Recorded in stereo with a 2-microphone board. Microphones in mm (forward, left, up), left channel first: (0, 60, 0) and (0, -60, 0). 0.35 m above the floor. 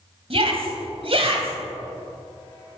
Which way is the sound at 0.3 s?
60° right (ahead or behind).